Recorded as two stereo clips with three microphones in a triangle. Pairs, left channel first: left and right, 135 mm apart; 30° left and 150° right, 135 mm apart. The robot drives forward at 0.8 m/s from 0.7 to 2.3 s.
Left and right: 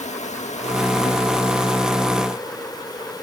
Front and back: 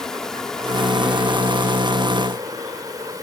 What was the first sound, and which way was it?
An insect, 115° left.